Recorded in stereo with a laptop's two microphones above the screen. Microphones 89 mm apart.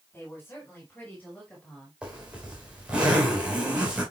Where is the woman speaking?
25° left (ahead or behind), 6.5 m; by 1.9 s 10° left (ahead or behind), 4.5 m.